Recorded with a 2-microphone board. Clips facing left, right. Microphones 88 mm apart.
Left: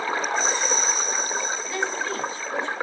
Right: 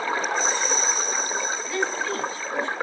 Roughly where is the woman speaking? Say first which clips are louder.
Right 2 dB; centre.